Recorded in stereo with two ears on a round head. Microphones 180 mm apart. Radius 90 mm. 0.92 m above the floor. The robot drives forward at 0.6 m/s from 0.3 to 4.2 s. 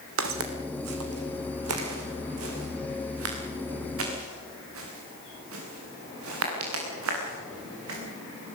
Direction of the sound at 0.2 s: 70° right (ahead or behind).